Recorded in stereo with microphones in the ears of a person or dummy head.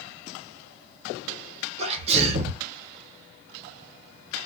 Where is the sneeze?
35° right (ahead or behind), 0.8 m.